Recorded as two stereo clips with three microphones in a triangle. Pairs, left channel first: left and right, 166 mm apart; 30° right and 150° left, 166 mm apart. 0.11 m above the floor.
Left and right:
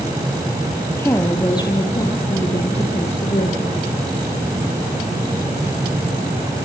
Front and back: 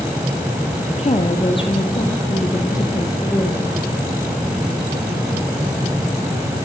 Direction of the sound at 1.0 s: 15° left.